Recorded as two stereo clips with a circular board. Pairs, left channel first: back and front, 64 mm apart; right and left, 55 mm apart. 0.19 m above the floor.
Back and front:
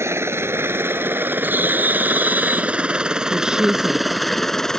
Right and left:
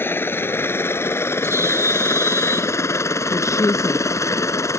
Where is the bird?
60° left.